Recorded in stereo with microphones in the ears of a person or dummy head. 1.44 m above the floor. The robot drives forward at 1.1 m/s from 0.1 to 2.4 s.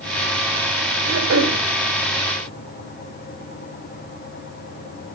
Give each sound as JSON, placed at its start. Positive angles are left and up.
{"t": 1.0, "sound": "throat clearing", "side_deg": -70, "distance_m": 3.0}